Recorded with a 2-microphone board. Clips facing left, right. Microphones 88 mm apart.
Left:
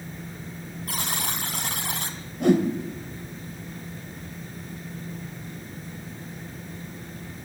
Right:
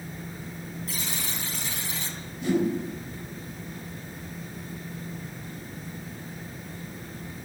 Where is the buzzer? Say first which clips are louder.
Left 7 dB; 65° left (ahead or behind), 2.5 m.